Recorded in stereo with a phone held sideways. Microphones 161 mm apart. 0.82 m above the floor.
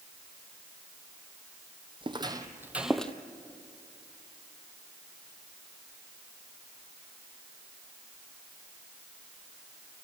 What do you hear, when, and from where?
2.0 s footsteps: 30° right (ahead or behind), 1.3 m; by 3.1 s 10° left (ahead or behind), 0.9 m